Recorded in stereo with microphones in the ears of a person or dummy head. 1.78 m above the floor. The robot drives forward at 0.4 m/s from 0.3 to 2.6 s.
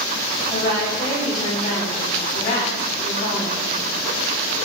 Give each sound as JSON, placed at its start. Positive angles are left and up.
{"t": 0.5, "sound": "a woman speaking", "side_deg": 20, "distance_m": 1.1}